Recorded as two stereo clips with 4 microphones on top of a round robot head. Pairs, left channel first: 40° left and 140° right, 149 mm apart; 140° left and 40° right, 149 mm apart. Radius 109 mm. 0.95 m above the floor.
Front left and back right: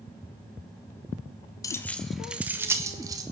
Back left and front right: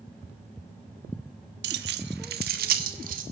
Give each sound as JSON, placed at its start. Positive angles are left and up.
{"t": 1.6, "sound": "keys jangling", "azimuth_deg": -30, "distance_m": 0.7}